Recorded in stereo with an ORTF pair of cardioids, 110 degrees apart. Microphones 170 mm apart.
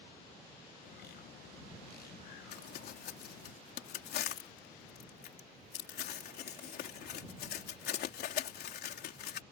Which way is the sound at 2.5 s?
65° left.